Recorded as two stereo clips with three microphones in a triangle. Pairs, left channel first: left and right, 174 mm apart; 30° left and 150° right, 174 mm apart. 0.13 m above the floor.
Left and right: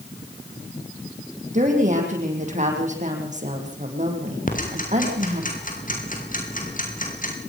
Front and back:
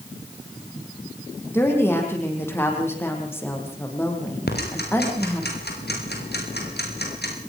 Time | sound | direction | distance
1.5 | a woman speaking | 45° right | 7 m
4.5 | ticking | 50° left | 6.5 m